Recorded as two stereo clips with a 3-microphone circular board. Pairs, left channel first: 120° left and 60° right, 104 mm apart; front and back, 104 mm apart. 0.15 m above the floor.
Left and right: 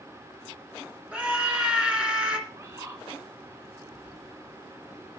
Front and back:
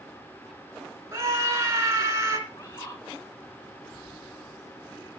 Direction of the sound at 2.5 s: 30° right.